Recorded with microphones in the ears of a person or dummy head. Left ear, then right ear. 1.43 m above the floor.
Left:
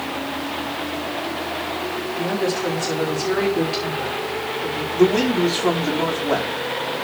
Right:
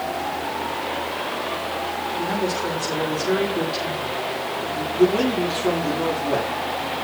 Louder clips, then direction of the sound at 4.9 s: Left 2 dB; 80° left.